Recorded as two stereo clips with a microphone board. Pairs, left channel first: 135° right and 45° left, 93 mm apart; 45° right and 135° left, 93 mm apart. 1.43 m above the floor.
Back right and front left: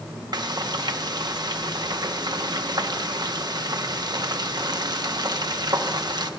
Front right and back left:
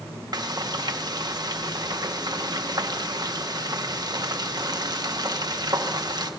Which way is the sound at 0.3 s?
90° left.